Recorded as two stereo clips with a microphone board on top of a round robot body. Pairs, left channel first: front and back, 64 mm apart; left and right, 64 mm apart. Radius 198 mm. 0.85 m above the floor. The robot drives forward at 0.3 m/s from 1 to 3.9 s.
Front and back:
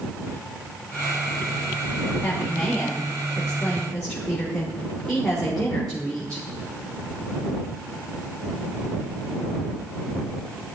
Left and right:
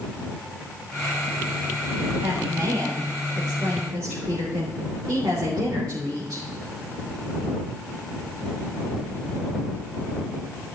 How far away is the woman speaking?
About 3.5 m.